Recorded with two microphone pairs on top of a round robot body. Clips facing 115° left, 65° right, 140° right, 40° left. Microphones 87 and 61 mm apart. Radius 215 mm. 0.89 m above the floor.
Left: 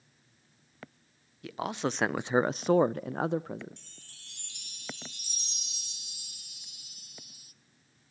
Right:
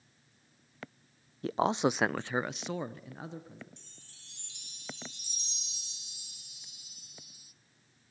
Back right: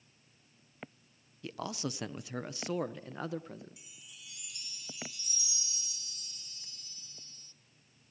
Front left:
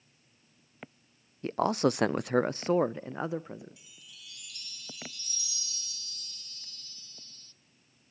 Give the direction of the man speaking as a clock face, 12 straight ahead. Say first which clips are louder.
Right 5 dB, front left 12 dB; 12 o'clock.